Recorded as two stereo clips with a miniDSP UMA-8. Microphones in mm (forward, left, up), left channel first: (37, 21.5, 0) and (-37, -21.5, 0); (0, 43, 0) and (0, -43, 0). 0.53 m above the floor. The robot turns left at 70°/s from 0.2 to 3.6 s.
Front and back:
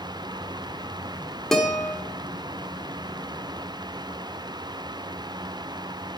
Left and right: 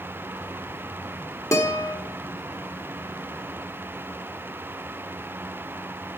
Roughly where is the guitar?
Behind left.